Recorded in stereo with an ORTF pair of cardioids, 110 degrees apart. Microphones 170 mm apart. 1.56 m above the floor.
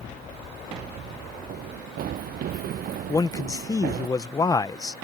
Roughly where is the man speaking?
Ahead.